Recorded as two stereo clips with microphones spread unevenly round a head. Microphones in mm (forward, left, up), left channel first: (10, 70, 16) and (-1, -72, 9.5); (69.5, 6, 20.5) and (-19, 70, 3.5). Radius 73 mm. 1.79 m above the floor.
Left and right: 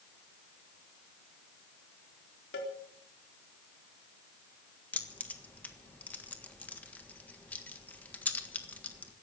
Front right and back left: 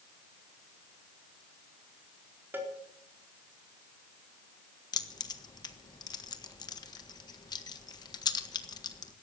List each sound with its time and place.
2.5 s a cowbell: 70° left, 4.5 m
4.9 s keys jangling: 10° left, 1.5 m